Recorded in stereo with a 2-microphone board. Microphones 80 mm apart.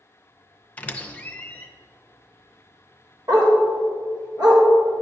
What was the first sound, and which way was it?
A squeak, 20° left (ahead or behind).